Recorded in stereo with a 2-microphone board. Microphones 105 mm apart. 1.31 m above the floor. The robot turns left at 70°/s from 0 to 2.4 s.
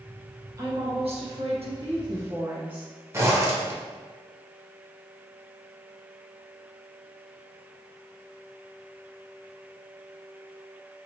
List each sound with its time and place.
0.6 s a woman speaking: 35° right, 1.2 m; by 2.9 s 160° right, 1.2 m
3.1 s a zipper: 25° right (ahead or behind), 0.8 m